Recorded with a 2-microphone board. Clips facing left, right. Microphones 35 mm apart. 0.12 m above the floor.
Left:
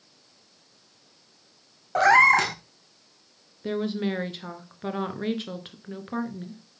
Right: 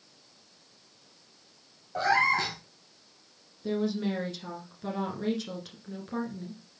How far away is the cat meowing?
About 1.0 m.